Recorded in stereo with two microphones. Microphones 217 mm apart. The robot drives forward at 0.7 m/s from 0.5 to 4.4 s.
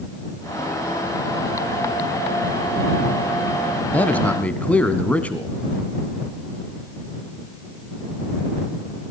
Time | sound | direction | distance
3.9 | a man speaking | 5° left (ahead or behind) | 1.0 m